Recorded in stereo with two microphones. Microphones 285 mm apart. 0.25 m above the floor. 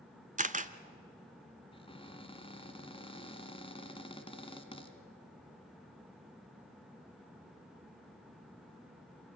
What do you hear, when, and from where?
0.4 s a camera shutter: 25° right (ahead or behind), 0.7 m
1.7 s a cupboard door: 20° left (ahead or behind), 1.3 m